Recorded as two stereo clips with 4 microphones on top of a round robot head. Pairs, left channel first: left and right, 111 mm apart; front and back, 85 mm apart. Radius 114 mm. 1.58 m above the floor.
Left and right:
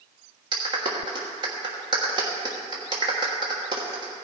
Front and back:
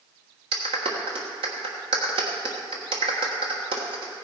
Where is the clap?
145° right, 1.2 m.